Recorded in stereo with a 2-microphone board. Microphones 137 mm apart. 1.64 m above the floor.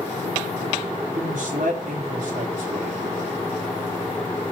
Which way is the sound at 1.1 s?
80° right.